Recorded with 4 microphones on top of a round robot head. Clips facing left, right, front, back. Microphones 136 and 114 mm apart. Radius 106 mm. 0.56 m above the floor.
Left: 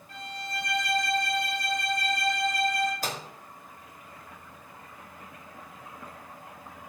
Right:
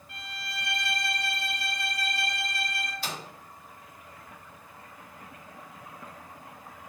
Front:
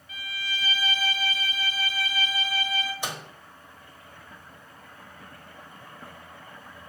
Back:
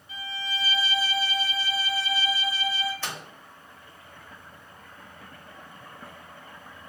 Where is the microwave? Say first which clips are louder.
Left 3 dB, front 2 dB; 70° left, 0.8 m.